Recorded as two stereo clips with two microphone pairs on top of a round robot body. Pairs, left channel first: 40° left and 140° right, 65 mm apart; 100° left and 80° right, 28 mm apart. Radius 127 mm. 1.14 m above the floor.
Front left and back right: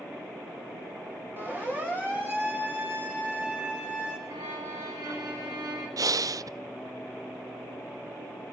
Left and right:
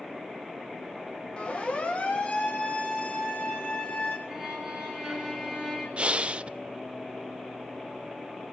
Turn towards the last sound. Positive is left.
turn(degrees=-130)